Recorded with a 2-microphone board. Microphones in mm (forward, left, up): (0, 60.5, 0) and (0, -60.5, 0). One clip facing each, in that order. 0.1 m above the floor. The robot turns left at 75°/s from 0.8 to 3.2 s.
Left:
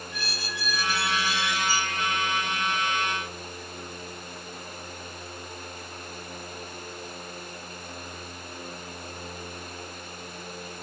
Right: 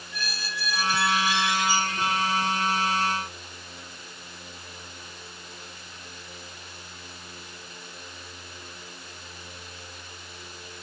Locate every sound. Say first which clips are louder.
0.1 s a squeak: right 3 dB; 20° left, 4.5 m; by 2.1 s 80° right, 4.5 m